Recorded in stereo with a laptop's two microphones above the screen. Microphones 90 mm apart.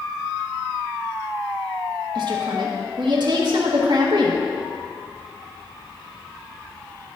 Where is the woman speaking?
55° right (ahead or behind), 1.4 m.